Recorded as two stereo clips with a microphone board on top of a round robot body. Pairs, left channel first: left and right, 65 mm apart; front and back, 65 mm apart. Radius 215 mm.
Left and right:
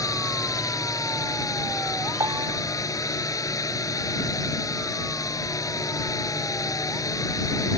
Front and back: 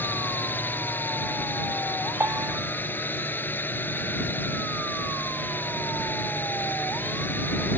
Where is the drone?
60° left.